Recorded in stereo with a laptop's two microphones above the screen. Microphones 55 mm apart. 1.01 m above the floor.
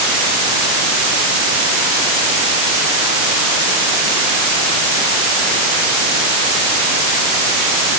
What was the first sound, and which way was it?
Only background noise.